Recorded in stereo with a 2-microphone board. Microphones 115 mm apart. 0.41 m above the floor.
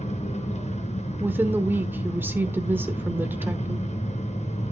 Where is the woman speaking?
20° right (ahead or behind), 1.0 m.